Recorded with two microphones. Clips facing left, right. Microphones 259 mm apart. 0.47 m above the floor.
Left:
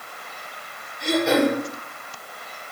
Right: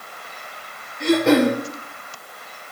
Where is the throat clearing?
75° right (ahead or behind), 1.7 m.